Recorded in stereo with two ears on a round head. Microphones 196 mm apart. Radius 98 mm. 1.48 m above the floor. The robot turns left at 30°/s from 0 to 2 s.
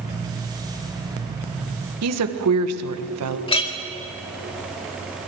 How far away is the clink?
About 1.9 m.